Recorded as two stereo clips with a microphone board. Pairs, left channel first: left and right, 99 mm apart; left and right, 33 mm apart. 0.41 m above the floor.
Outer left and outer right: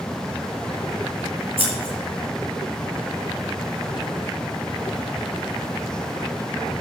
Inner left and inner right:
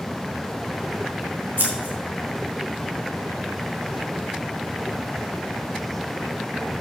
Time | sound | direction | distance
1.6 | scissors | 75° right (ahead or behind) | 5.5 m